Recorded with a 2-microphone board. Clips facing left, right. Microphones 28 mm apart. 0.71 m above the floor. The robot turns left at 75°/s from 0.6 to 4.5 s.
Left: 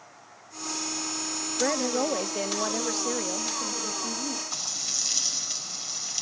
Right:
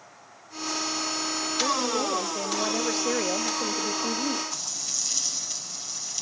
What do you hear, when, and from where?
1.6 s a woman speaking: 85° left, 0.7 m; by 4.4 s 125° right, 0.7 m
4.5 s frying: 20° left (ahead or behind), 4.5 m